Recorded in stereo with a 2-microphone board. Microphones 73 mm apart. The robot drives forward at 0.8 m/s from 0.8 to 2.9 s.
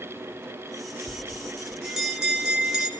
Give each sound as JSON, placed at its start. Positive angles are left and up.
{"t": 1.1, "sound": "a bell", "side_deg": -15, "distance_m": 1.8}